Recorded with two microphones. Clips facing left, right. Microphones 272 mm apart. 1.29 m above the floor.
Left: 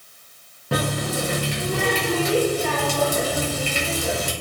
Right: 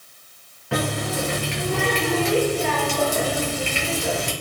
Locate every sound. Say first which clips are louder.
0.7 s a running tap: even; 45° left (ahead or behind), 0.6 m